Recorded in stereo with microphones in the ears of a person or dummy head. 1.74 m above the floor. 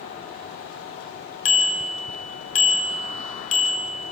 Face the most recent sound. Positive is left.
turn(degrees=45)  # may be behind; listen again after turning